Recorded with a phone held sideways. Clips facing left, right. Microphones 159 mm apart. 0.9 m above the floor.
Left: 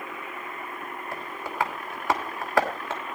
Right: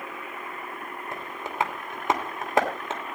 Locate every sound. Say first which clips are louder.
1.1 s tapping: right 1 dB; 20° right (ahead or behind), 2.5 m